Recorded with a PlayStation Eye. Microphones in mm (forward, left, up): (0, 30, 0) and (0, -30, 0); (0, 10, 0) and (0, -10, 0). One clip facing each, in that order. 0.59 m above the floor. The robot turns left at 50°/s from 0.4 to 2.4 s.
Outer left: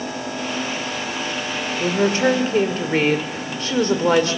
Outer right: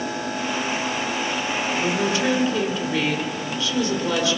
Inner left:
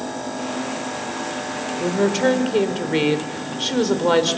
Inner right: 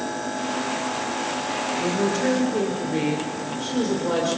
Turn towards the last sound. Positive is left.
turn(degrees=120)